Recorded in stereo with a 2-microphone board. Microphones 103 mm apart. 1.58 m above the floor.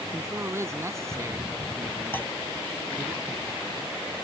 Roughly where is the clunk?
Centre.